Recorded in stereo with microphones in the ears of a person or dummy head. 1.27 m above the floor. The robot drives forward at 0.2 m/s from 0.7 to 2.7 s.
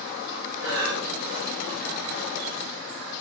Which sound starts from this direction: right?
Breathing, at 0.6 s.